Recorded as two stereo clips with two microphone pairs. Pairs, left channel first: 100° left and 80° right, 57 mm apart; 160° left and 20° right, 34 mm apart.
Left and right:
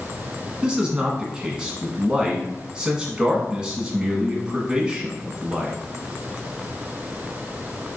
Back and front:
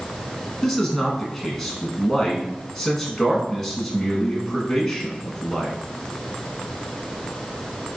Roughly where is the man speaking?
Behind right.